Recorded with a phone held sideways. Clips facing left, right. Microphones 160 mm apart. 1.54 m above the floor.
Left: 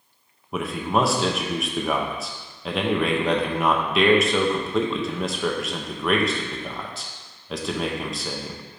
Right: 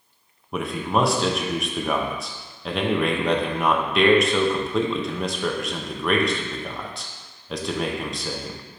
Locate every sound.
0.5 s a man speaking: centre (ahead or behind), 0.5 m